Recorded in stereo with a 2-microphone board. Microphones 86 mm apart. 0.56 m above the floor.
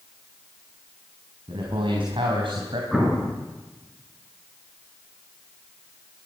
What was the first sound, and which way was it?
A man speaking, 75° right (ahead or behind).